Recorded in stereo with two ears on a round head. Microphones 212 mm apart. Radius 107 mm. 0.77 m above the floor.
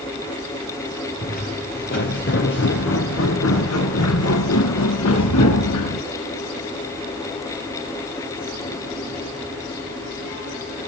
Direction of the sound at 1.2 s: 35° left (ahead or behind).